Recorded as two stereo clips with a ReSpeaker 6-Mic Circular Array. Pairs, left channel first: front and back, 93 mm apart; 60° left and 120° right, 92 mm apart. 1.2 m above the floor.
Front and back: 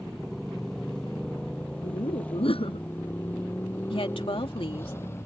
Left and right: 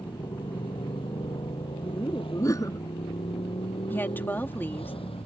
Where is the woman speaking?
10° right.